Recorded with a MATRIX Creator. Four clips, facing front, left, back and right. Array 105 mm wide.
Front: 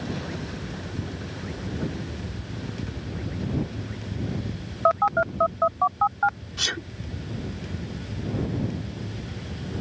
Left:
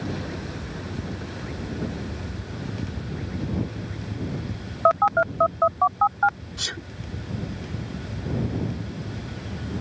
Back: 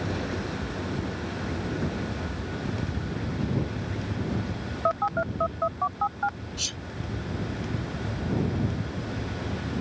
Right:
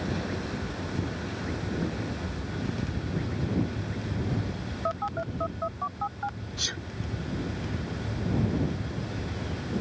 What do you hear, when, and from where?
4.8 s a phone buzzing: 65° left
6.6 s a sneeze: 10° left